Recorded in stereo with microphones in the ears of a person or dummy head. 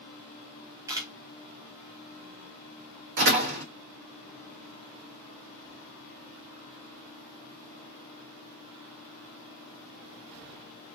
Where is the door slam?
60° right (ahead or behind), 1.3 m.